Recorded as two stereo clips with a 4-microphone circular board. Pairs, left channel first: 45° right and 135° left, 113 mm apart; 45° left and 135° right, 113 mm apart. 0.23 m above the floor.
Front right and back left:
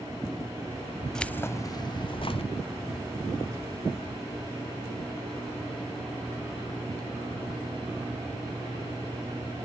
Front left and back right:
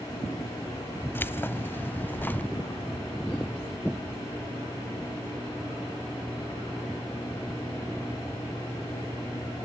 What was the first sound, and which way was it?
Keys jangling, 30° left.